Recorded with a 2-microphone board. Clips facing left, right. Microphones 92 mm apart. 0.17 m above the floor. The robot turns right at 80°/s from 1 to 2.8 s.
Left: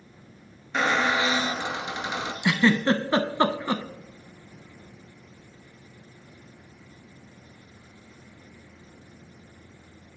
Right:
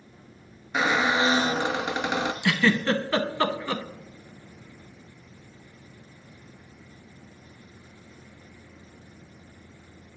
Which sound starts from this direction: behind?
A squeak, at 0.7 s.